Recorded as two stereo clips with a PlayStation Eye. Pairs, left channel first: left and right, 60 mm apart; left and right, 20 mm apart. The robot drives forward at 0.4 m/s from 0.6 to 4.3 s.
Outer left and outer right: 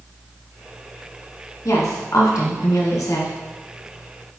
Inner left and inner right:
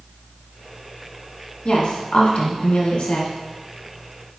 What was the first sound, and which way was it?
A woman speaking, 65° left (ahead or behind).